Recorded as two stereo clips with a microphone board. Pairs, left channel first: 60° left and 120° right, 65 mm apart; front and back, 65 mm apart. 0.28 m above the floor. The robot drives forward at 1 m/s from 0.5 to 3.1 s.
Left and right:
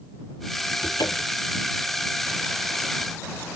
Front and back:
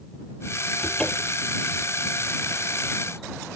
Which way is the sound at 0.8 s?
75° left.